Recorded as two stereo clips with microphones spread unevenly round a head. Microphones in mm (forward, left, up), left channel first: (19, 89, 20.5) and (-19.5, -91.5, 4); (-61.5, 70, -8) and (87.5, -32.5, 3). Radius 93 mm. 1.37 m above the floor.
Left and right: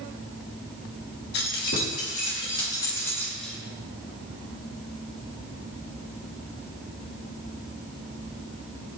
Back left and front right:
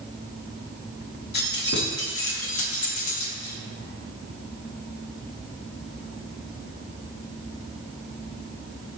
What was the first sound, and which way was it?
Keys jangling, 110° left.